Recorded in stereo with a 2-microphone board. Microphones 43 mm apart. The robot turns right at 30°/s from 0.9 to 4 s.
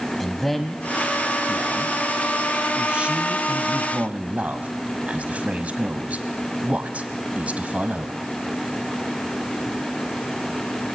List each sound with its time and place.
0.2 s a man speaking: 5° left (ahead or behind), 1.2 m; by 8.2 s 35° right (ahead or behind), 1.2 m